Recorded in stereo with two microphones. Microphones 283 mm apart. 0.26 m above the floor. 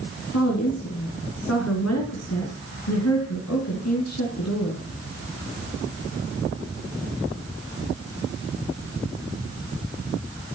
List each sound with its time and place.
0.3 s a woman speaking: 65° left (ahead or behind), 2.5 m